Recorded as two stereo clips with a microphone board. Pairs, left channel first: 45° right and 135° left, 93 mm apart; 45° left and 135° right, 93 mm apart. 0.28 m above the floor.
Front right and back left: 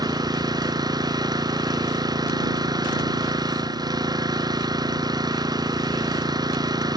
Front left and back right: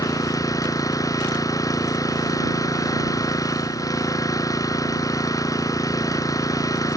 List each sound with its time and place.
0.0 s an engine running: 95° left